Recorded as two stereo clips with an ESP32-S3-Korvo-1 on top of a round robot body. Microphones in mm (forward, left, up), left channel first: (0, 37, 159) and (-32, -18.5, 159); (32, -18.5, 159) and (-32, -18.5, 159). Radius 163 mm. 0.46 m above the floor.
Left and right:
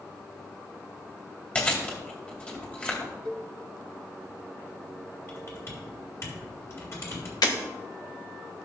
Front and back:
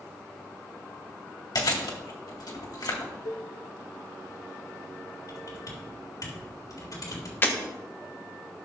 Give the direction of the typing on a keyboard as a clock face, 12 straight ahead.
11 o'clock.